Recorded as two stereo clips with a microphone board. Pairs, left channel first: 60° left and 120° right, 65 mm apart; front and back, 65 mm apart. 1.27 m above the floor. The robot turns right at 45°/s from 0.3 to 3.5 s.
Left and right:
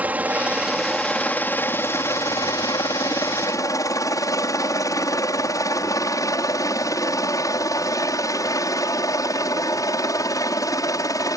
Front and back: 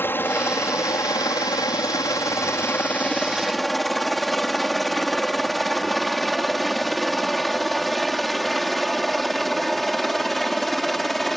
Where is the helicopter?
55° right; by 11.4 s 90° left.